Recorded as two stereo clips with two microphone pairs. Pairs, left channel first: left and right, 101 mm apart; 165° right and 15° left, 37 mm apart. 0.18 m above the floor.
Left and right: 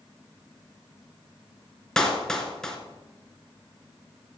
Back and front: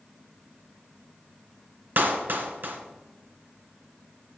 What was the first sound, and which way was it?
A clap, 5° left.